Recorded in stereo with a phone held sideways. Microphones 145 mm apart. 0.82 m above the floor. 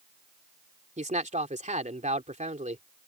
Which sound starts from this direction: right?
A man speaking, at 1.0 s.